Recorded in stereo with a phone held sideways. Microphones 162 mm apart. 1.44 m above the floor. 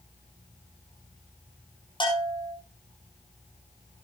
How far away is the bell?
About 5.5 m.